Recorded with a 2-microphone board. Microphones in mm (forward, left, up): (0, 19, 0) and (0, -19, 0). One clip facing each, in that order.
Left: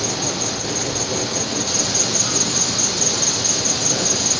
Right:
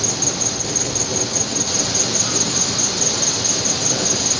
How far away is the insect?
About 1.1 m.